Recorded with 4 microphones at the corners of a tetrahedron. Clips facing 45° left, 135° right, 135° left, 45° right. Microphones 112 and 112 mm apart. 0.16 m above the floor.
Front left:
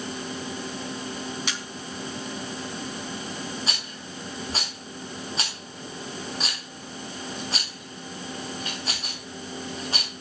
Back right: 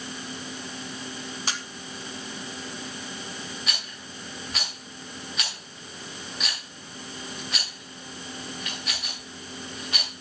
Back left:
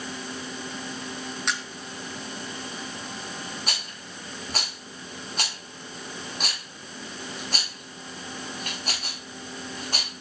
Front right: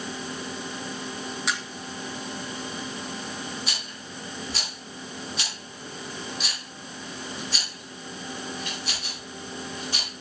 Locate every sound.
1.5 s a camera shutter: 130° right, 2 m
3.7 s a rattle: 100° left, 9 m